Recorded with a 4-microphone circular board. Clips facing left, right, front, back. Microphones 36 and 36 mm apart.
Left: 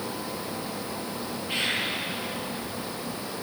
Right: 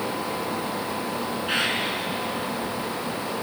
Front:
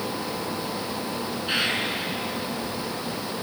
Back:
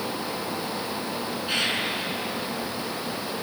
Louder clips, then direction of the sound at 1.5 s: Right 3 dB, front 1 dB; 70° right.